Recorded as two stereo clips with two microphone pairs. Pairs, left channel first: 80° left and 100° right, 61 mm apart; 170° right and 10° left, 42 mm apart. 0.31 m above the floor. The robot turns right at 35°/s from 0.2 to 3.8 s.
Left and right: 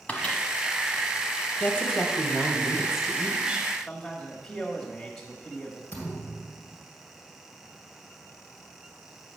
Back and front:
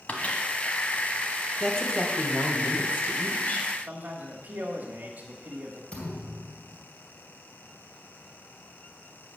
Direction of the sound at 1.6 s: 130° left.